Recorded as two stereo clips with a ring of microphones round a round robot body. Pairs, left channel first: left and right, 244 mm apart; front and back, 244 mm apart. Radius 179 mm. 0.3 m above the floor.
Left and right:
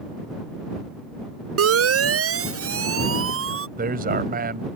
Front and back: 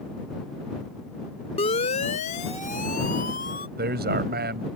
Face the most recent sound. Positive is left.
turn(degrees=-140)